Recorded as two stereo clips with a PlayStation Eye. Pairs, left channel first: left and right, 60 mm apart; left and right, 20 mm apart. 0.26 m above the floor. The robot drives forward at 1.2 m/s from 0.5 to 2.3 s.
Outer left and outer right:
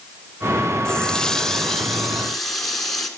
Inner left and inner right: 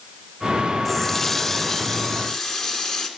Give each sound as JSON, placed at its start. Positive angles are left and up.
{"t": 0.8, "sound": "a running tap", "side_deg": 10, "distance_m": 0.6}